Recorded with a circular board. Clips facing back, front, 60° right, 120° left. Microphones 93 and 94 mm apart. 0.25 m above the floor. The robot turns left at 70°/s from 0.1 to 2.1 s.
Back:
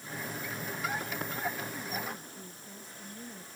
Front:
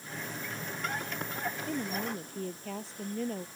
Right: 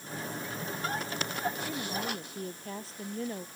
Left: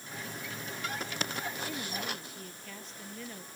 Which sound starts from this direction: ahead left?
A woman speaking, at 1.7 s.